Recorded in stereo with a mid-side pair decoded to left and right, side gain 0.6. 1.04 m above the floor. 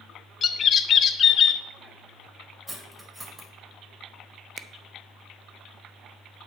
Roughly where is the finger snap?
Ahead right.